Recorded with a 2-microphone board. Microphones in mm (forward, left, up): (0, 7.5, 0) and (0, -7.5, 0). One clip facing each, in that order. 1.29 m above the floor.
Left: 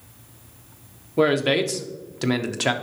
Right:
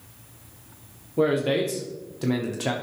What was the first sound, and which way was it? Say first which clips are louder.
A man speaking: left 3 dB; 35° left (ahead or behind).